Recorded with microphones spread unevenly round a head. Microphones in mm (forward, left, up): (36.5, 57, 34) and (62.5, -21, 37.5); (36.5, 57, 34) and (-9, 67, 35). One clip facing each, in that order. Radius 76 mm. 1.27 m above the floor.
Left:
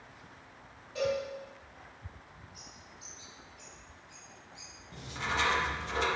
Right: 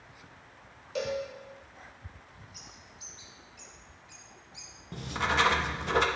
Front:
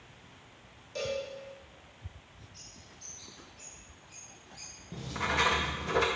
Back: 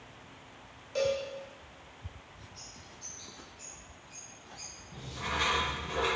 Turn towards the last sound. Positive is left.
turn(degrees=-40)